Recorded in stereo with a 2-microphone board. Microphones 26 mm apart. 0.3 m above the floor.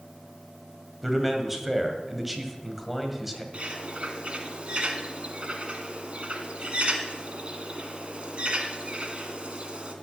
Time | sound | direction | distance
1.0 | a man speaking | 5° right (ahead or behind) | 2 m
3.5 | a bird | 40° right (ahead or behind) | 1.8 m